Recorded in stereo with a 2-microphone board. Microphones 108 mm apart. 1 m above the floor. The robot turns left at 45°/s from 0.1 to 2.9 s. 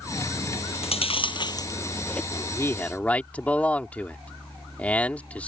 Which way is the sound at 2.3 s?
40° left (ahead or behind).